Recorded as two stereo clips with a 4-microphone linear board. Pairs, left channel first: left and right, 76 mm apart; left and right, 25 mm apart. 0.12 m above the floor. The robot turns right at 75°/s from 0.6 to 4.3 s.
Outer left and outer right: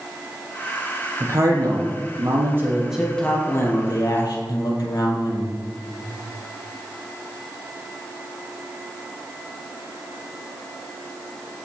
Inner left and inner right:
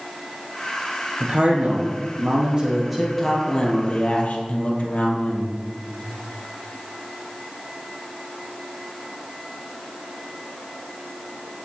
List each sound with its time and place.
1.2 s a man speaking: 135° right, 4 m; by 5.5 s 95° left, 4 m